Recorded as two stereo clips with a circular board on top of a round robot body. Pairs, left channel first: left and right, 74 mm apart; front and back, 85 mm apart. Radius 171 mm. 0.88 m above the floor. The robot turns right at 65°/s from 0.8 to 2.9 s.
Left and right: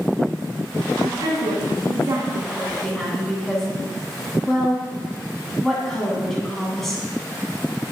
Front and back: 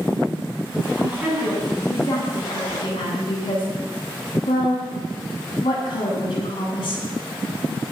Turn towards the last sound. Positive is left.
turn(degrees=0)